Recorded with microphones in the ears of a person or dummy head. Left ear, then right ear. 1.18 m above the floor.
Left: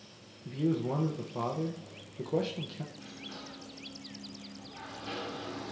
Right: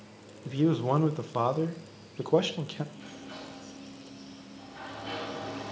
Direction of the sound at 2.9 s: 10° right (ahead or behind).